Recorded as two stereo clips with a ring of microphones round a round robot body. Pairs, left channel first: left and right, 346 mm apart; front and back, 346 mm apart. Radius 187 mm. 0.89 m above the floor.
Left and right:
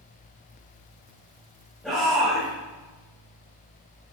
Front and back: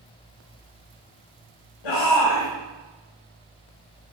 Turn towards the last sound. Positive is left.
turn(degrees=0)